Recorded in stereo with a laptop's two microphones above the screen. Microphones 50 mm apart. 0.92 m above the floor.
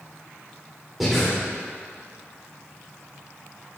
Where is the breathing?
Centre (ahead or behind), 3.5 m.